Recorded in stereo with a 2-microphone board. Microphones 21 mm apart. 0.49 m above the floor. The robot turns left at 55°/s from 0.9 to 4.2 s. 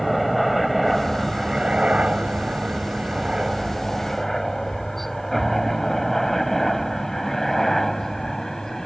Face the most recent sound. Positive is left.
turn(degrees=20)  # may be behind; listen again after turning